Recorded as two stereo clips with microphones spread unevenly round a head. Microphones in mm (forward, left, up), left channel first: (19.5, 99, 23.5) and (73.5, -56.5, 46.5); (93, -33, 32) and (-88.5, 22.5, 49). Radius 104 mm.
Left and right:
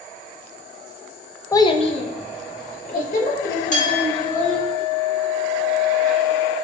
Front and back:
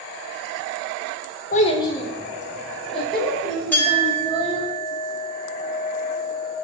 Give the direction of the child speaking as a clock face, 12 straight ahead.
11 o'clock.